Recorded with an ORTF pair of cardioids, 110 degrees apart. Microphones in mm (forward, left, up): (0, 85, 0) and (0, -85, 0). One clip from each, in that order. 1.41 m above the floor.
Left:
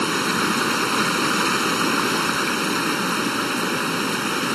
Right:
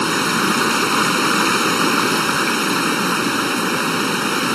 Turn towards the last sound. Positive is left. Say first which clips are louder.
# right 3 dB
turn(degrees=-30)